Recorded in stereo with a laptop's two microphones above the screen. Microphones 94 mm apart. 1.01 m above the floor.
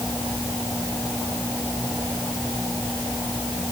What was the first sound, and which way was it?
Only background noise.